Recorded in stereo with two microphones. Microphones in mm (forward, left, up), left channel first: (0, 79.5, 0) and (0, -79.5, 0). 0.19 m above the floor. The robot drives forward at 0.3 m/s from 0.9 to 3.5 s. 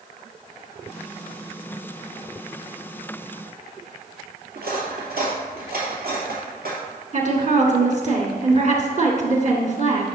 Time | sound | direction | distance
4.5 | cutlery clinking | 75° right (ahead or behind) | 2.5 m
7.1 | a woman speaking | 50° right (ahead or behind) | 1.9 m